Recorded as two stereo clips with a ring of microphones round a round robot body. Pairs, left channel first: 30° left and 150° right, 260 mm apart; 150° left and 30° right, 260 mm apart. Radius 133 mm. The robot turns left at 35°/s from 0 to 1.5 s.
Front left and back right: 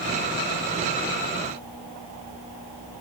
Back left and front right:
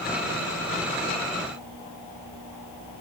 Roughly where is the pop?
No pop in this recording.